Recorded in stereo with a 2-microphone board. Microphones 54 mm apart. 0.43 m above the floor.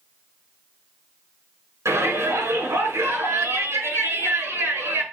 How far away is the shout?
About 5.5 m.